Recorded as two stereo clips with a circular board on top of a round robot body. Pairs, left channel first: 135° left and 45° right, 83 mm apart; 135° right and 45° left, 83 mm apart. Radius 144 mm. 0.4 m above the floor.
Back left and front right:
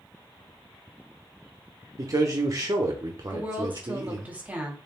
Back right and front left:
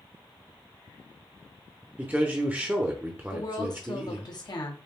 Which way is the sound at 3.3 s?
115° right.